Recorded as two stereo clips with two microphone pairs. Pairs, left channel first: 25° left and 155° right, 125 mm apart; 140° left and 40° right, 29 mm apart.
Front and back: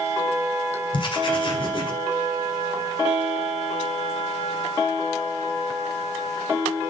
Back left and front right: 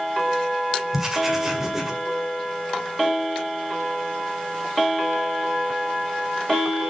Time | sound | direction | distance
0.9 | writing | 30° left | 1.8 m